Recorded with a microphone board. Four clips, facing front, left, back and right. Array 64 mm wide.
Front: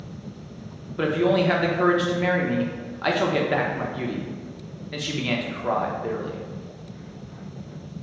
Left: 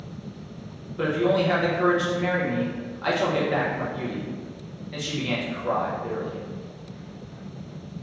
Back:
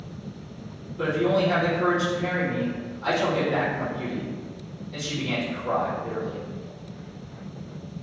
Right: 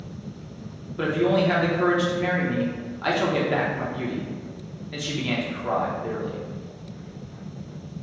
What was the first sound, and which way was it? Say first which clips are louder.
A man speaking: right 1 dB, front 2 dB; 10° right.